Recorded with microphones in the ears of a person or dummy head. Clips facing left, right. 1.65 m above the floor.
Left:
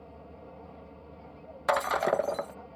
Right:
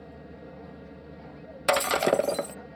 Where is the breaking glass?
35° right (ahead or behind).